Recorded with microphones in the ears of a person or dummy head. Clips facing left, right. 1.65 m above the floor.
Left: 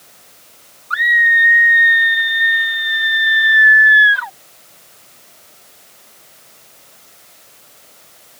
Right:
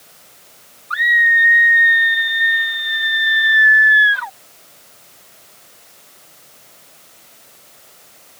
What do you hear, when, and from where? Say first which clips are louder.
0.9 s a scream: left 1 dB; centre (ahead or behind)